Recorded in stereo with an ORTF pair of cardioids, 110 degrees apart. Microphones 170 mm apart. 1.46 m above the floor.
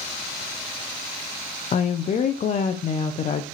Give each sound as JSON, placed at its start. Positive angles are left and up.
{"t": 1.7, "sound": "a woman speaking", "azimuth_deg": 45, "distance_m": 0.7}